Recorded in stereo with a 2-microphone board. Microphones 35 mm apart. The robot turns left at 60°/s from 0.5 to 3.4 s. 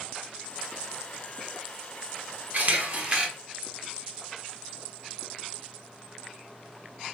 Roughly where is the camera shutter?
Right.